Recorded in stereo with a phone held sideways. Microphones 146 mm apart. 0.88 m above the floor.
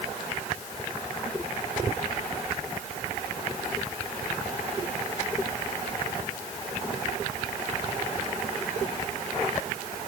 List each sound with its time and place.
Only background noise.